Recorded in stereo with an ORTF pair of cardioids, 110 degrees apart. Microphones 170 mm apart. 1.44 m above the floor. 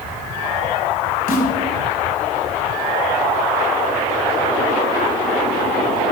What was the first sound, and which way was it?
A snare drum, 55° left.